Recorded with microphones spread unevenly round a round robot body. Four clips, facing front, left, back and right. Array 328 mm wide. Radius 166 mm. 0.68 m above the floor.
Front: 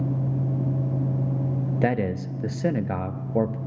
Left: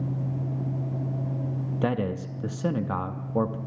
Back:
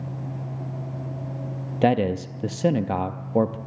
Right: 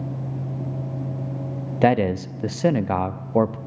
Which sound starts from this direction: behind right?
A man speaking, at 1.8 s.